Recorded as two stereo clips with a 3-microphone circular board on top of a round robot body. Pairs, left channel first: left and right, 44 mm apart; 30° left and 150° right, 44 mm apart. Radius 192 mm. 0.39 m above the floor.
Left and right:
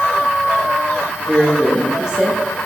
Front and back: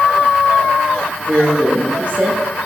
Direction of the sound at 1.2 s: 155° right.